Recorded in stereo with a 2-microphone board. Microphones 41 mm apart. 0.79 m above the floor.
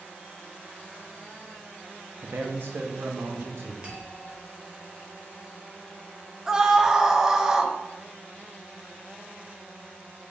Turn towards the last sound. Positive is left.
turn(degrees=-10)  # may be behind; listen again after turning